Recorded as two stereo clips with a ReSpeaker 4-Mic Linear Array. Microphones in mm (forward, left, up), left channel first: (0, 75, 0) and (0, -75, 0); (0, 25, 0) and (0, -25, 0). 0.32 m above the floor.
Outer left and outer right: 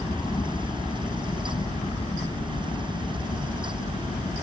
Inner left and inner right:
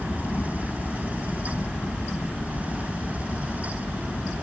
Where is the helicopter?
30° left (ahead or behind); by 4.4 s 60° left (ahead or behind).